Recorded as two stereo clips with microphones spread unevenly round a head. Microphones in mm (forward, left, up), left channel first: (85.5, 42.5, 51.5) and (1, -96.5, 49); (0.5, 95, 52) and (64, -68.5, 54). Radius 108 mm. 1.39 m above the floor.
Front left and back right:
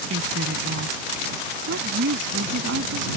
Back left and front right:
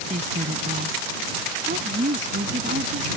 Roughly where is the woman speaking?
Behind right.